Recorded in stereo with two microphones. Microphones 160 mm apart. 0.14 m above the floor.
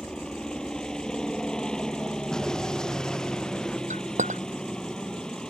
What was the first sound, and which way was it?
A helicopter, 5° left (ahead or behind).